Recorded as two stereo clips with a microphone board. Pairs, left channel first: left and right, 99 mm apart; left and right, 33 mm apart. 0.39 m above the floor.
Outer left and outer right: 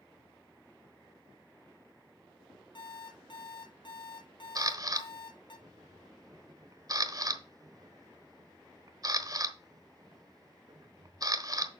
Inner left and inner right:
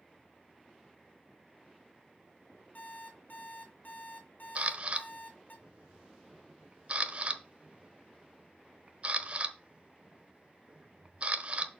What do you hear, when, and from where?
2.8 s an alarm clock: 55° left (ahead or behind), 2.5 m
4.5 s a camera shutter: 40° right (ahead or behind), 1.0 m